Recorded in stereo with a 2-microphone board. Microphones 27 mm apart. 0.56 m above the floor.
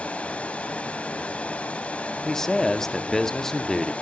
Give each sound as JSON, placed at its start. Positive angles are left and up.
{"t": 0.0, "sound": "running water", "side_deg": 50, "distance_m": 1.5}
{"t": 2.2, "sound": "a man speaking", "side_deg": 15, "distance_m": 0.8}